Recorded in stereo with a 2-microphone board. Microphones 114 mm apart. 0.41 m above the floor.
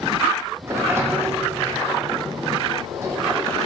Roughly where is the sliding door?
Right.